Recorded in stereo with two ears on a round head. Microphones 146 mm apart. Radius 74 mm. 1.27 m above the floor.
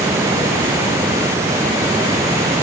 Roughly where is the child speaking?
No child speaking in this recording.